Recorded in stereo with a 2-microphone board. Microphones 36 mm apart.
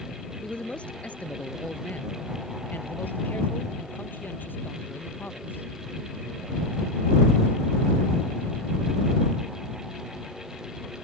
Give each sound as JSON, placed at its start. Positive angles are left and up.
{"t": 0.4, "sound": "a man speaking", "side_deg": 30}